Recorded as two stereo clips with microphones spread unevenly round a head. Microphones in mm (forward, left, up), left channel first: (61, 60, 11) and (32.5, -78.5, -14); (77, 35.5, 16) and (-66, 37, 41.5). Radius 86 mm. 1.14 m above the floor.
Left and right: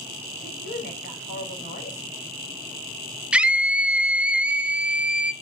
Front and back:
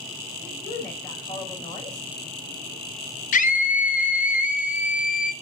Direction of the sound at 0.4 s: 65° left.